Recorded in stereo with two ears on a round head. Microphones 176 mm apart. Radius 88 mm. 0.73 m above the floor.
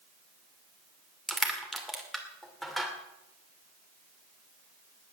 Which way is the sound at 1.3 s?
Centre (ahead or behind).